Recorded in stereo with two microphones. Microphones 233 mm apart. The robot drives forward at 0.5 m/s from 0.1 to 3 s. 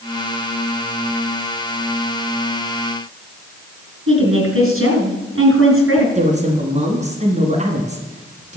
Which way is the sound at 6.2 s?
30° right (ahead or behind).